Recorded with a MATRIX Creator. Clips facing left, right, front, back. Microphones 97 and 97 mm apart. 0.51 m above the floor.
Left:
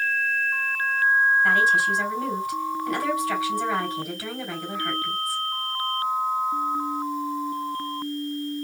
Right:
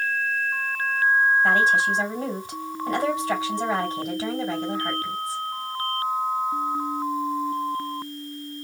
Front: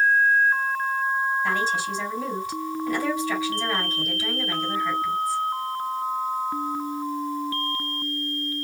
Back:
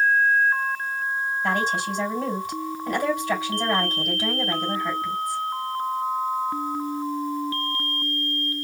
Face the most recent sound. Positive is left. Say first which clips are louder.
# right 1 dB, back 1 dB
turn(degrees=-150)